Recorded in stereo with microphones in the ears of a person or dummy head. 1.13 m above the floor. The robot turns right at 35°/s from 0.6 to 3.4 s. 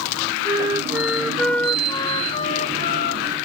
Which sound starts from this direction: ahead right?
A flute, at 0.5 s.